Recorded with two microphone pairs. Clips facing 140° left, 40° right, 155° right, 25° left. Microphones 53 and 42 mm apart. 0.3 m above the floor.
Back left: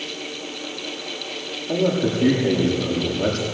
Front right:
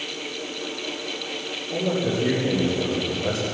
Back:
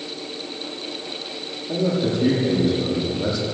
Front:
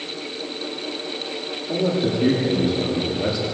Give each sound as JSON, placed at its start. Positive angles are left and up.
{"t": 1.7, "sound": "a man speaking", "azimuth_deg": 115, "distance_m": 9.5}